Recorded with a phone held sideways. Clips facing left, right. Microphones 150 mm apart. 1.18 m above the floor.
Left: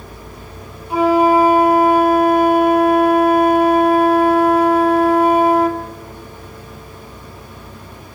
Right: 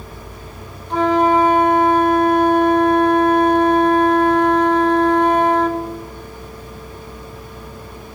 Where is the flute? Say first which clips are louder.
Left 2 dB; 10° left (ahead or behind), 0.6 m.